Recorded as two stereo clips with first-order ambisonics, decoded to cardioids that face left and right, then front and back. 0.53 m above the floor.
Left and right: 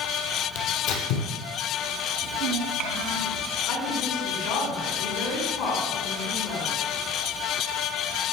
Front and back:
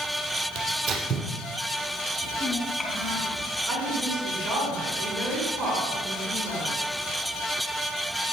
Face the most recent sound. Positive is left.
turn(degrees=100)